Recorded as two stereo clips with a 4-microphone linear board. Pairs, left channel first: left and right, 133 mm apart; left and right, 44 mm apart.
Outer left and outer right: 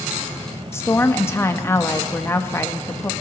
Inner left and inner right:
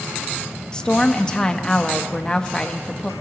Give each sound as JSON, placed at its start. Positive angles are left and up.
{"t": 0.7, "sound": "a woman speaking", "side_deg": 20, "distance_m": 0.7}